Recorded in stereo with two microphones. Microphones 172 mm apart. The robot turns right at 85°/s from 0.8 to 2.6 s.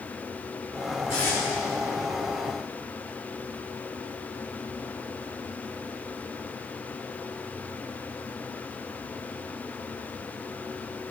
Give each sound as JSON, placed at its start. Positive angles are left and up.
{"t": 1.1, "sound": "tape being pulled", "side_deg": 30, "distance_m": 4.5}